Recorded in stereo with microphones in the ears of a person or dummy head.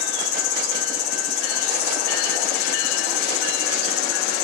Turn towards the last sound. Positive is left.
turn(degrees=65)  # may be behind; listen again after turning